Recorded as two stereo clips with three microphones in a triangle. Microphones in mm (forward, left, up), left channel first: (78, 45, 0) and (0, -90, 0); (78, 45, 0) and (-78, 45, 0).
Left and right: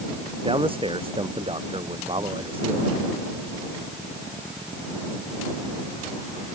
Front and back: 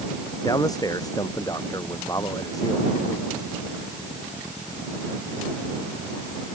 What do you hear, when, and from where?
0.4 s a man speaking: 65° right